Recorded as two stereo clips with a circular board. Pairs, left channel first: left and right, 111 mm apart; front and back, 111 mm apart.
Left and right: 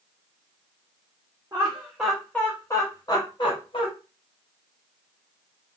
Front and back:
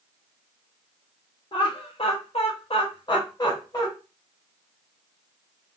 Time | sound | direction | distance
1.5 | laughter | 30° right | 0.7 m